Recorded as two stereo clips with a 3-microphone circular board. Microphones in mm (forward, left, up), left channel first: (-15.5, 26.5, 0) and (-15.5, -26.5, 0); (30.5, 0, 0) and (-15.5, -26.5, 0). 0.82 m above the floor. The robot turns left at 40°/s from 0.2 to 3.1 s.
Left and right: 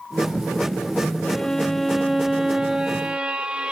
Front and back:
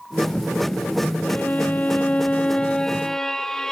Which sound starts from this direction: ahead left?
A violin, at 1.2 s.